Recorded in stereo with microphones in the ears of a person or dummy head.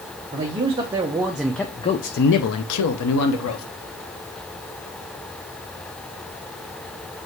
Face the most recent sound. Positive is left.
turn(degrees=75)  # may be behind; listen again after turning